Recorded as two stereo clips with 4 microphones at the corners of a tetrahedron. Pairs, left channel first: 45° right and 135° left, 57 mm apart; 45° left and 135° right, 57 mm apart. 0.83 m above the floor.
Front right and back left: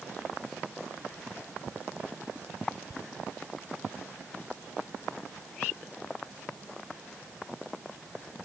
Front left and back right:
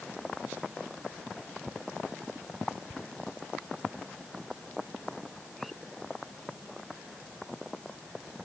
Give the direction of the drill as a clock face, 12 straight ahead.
No drill in this recording.